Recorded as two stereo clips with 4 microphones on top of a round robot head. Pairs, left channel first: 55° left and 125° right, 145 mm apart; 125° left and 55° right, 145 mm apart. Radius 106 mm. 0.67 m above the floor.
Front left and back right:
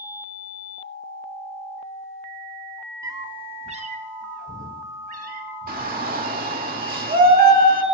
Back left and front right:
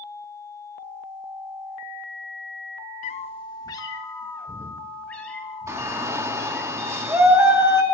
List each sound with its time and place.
3.0 s a cat meowing: 165° left, 0.5 m; by 6.7 s 150° right, 3 m
5.7 s a shout: 125° right, 2.5 m